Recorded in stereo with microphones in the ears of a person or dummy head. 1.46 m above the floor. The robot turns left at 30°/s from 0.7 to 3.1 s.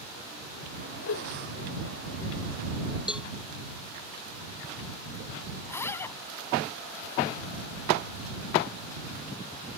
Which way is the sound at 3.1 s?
5° right (ahead or behind).